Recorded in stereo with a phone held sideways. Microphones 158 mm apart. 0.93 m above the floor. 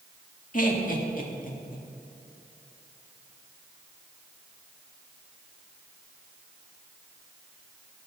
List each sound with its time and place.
0.5 s laughter: 60° left (ahead or behind), 2.0 m